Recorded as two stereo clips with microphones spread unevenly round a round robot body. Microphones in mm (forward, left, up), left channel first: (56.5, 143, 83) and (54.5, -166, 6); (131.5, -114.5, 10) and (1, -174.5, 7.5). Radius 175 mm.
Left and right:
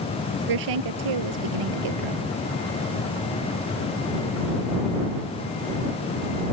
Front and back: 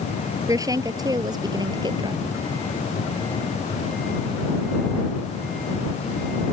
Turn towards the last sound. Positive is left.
turn(degrees=-95)